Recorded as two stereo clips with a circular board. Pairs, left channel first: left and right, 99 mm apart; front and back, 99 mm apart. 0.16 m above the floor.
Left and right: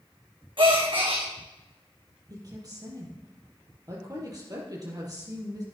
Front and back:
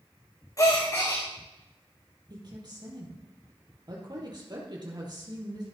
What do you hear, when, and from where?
0.6 s a gasp: 55° right, 3 m
2.3 s a woman speaking: 140° right, 4.5 m